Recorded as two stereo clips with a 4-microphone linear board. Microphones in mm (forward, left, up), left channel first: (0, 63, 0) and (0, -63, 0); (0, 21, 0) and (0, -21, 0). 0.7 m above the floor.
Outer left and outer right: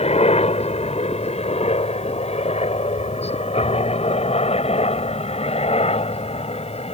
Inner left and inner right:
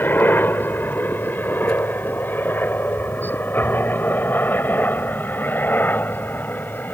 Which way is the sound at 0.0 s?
55° left (ahead or behind).